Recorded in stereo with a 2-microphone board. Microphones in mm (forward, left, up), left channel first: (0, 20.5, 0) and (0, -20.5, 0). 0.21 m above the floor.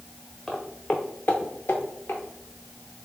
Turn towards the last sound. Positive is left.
turn(degrees=75)  # may be behind; listen again after turning